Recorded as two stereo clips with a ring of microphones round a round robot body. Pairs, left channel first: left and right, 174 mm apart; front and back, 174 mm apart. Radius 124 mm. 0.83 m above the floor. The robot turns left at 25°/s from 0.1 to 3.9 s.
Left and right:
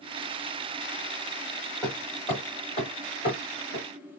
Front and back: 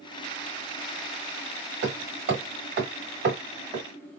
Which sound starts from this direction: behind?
Hammering, at 1.8 s.